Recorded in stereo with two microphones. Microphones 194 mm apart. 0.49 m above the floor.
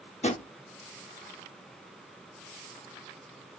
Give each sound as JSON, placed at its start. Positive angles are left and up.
{"t": 0.2, "sound": "a drawer", "side_deg": 35, "distance_m": 0.6}